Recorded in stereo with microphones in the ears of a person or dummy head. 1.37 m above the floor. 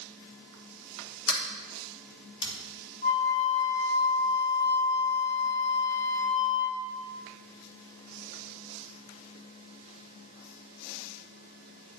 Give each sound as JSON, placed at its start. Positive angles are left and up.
{"t": 1.3, "sound": "a sliding door", "side_deg": 75, "distance_m": 2.0}
{"t": 3.0, "sound": "a flute", "side_deg": 35, "distance_m": 1.3}